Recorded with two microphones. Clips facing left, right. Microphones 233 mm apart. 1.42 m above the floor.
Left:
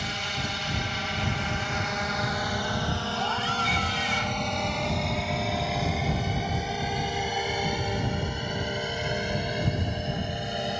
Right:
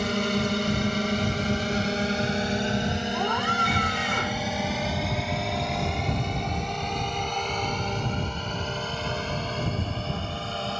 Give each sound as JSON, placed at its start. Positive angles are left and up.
{"t": 0.0, "sound": "a drone", "side_deg": -60}
{"t": 3.1, "sound": "a scream", "side_deg": -60}